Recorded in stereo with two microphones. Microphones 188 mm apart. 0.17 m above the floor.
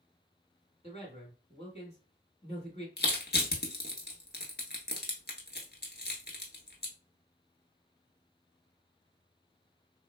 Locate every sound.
0.8 s a man speaking: 35° left (ahead or behind), 1.4 m
3.0 s crushing: 60° left (ahead or behind), 0.9 m